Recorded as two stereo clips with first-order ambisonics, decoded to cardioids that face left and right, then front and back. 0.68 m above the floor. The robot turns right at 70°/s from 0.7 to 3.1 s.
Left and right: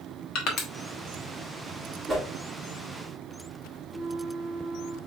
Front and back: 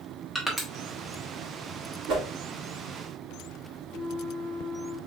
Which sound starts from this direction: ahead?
A flute, at 3.9 s.